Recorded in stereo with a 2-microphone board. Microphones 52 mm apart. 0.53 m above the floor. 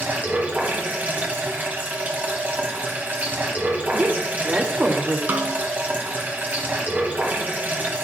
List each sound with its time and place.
0.0 s running water: 35° right (ahead or behind), 2 m
3.9 s a woman speaking: 35° right (ahead or behind), 1.9 m
5.3 s a snare drum: 40° right (ahead or behind), 1.3 m